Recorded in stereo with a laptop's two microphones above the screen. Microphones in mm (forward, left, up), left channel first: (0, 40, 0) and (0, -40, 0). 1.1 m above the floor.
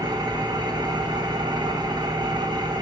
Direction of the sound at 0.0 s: 65° right (ahead or behind).